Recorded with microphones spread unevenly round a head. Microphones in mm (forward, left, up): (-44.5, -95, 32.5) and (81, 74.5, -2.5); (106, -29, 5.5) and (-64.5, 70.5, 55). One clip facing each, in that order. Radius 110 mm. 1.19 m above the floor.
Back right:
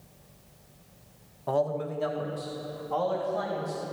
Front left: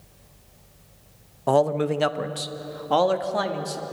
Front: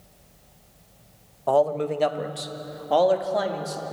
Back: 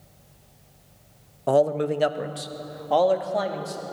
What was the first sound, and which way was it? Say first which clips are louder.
A man speaking: front left 8 dB, back 1 dB; 85° left.